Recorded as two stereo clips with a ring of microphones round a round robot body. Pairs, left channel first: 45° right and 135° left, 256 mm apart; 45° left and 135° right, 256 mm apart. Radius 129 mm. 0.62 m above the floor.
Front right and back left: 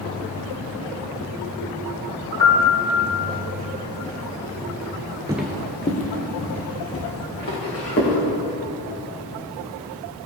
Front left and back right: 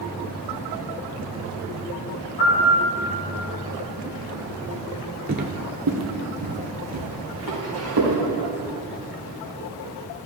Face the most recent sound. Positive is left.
turn(degrees=-95)